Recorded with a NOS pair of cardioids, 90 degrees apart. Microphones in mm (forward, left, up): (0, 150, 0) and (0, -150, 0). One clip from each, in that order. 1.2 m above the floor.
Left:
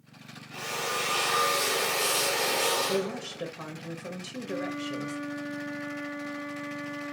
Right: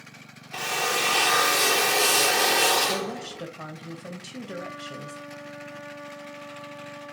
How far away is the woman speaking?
About 1.4 m.